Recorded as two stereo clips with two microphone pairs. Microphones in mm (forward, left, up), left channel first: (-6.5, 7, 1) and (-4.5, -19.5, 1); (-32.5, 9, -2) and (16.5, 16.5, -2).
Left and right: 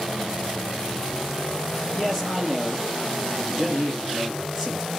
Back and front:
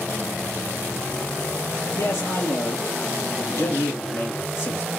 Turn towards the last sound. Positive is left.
turn(degrees=-165)